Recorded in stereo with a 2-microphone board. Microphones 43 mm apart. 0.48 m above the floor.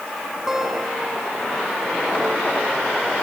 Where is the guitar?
10° right (ahead or behind), 2.5 m.